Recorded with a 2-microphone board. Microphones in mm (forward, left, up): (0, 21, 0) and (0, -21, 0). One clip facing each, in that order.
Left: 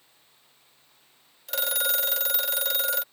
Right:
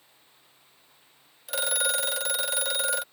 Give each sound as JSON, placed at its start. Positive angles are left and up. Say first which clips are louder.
{"t": 1.5, "sound": "a phone ringing", "louder": "right 1 dB", "side_deg": -10}